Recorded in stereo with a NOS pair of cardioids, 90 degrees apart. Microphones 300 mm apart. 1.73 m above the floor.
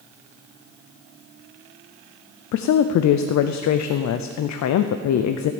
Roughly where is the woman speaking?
Ahead left.